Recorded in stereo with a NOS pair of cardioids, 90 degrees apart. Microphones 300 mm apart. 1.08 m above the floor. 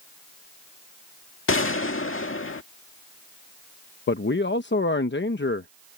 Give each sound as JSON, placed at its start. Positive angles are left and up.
{"t": 1.5, "sound": "a gunshot", "azimuth_deg": 45}
{"t": 4.1, "sound": "a man speaking", "azimuth_deg": 40}